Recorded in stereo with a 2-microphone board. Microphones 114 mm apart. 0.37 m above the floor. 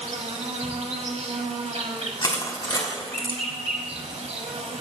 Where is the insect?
75° right (ahead or behind), 0.8 m.